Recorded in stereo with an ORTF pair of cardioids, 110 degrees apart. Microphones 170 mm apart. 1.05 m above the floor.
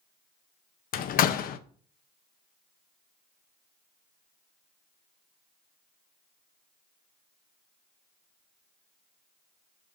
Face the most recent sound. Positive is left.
turn(degrees=60)